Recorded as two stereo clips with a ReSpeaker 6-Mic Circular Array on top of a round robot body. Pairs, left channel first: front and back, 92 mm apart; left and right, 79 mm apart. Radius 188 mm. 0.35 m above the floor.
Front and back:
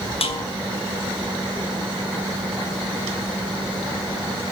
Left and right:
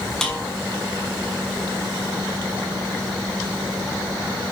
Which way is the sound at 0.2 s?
5° left.